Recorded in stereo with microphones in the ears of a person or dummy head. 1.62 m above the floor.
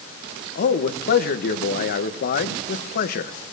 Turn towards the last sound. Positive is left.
turn(degrees=50)  # may be behind; listen again after turning